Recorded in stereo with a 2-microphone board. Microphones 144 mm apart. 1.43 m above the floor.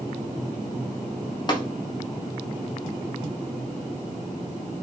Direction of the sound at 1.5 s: 30° left (ahead or behind).